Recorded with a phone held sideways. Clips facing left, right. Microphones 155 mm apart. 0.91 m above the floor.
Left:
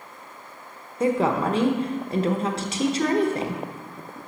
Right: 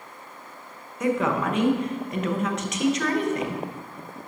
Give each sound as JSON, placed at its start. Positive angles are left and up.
{"t": 1.0, "sound": "a woman speaking", "side_deg": 35, "distance_m": 0.8}